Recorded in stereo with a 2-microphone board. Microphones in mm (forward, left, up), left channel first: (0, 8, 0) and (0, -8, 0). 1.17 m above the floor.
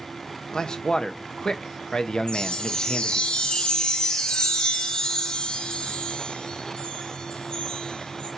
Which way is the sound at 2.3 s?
70° left (ahead or behind).